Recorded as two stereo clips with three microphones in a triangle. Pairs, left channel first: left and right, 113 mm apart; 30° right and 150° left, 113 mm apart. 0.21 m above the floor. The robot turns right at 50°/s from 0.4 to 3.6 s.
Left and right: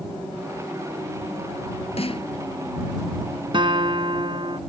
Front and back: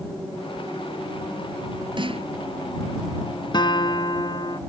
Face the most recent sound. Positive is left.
turn(degrees=-65)